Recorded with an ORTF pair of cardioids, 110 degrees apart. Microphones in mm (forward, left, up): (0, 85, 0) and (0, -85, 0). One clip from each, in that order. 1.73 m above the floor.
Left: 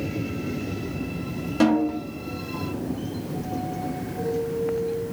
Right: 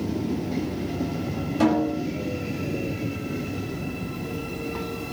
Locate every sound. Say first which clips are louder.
1.6 s a snare drum: left 1 dB; 20° left, 1.3 m